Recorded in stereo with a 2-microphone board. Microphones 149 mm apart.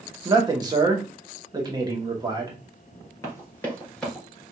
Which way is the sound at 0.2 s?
25° right (ahead or behind).